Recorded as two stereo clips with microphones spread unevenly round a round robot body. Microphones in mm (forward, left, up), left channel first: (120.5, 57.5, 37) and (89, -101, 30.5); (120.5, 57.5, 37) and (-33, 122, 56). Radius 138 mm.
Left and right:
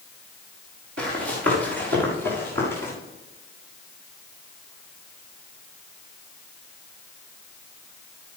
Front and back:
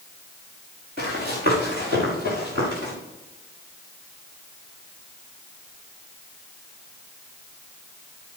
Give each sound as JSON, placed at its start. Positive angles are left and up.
{"t": 1.0, "sound": "running footsteps", "azimuth_deg": -145, "distance_m": 5.5}